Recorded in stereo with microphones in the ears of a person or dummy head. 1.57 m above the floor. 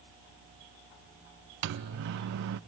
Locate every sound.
1.6 s a microwave: 55° right (ahead or behind), 0.5 m